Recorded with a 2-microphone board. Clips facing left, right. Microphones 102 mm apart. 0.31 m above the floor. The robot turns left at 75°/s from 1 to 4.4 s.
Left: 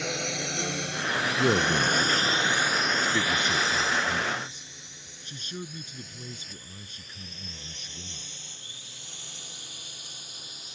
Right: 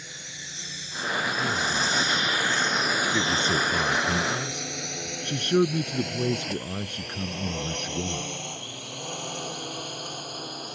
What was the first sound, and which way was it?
A drone, 75° left (ahead or behind).